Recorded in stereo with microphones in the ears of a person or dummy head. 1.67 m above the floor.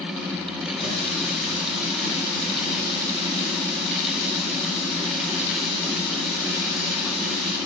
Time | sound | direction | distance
0.8 | a running tap | 35° left (ahead or behind) | 4 m